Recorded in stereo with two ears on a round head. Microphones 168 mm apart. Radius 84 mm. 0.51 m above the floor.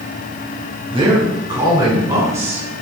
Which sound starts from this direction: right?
A man speaking, at 0.9 s.